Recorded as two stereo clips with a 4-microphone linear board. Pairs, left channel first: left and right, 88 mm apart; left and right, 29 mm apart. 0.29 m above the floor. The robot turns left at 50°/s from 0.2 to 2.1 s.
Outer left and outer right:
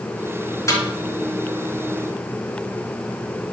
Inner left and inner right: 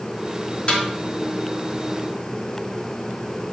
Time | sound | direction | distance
0.7 | a snare drum | 40° left (ahead or behind) | 3.5 m